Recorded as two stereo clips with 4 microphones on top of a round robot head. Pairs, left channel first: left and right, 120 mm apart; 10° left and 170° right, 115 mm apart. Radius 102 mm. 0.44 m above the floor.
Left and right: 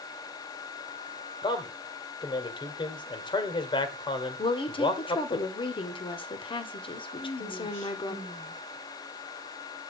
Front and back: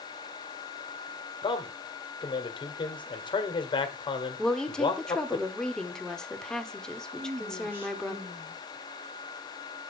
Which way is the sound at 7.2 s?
120° left.